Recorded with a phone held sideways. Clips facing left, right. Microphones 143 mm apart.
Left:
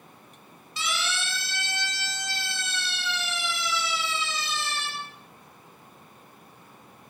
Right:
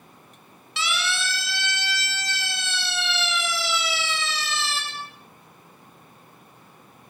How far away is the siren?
About 5.5 m.